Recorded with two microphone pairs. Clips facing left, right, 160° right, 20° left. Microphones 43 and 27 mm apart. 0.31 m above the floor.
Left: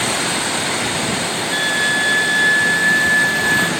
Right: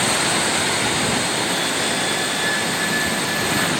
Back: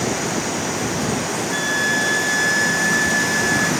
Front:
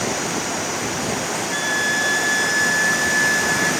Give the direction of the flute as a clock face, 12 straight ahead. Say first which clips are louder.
Left 5 dB, back 1 dB; 8 o'clock.